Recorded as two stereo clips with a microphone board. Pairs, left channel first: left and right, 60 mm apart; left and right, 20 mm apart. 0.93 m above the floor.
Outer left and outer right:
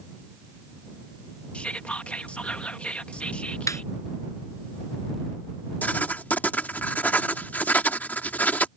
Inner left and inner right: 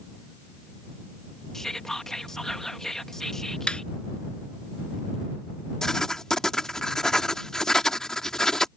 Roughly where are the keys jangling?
No keys jangling in this recording.